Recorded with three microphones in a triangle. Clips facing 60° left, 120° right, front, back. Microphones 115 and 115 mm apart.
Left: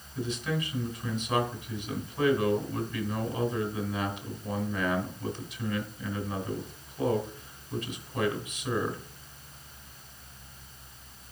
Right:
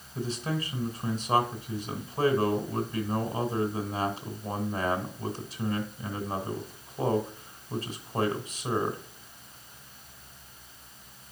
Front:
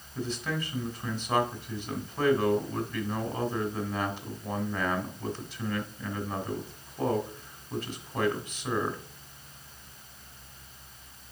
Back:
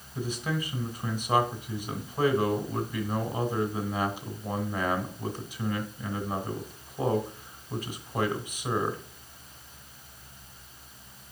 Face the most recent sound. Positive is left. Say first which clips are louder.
# even, back 1 dB
turn(degrees=-110)